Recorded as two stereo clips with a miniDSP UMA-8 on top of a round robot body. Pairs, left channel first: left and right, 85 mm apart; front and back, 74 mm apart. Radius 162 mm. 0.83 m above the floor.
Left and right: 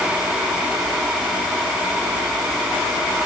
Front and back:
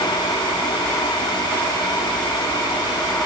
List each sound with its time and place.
Only background noise.